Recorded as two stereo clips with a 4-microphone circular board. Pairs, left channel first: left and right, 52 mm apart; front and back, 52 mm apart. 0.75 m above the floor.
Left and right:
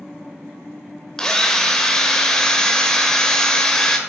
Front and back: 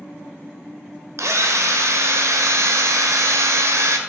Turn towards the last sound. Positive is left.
turn(degrees=170)